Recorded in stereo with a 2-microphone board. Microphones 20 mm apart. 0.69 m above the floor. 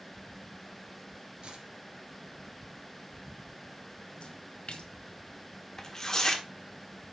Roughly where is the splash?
Left.